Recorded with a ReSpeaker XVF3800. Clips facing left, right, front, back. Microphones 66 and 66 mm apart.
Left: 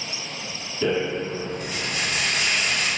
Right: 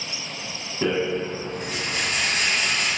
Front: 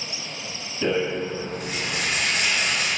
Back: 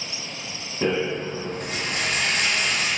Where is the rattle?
135° right, 1.4 m.